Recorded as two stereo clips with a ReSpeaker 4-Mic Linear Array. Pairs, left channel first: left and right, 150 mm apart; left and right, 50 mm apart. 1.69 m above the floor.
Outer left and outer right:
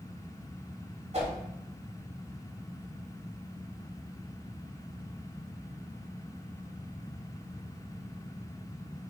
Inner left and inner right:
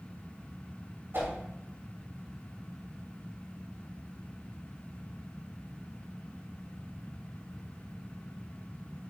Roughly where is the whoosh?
Right.